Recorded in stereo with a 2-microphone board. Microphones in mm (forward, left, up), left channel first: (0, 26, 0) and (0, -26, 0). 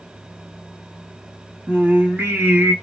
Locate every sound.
1.7 s singing: 35° right (ahead or behind), 1.2 m